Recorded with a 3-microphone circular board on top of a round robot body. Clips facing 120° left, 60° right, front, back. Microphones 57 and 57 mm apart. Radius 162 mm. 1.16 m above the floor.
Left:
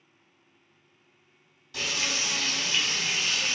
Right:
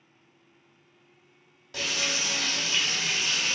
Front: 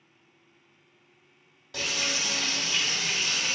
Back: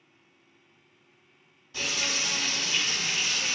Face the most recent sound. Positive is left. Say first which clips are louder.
# right 1 dB, even
turn(degrees=-20)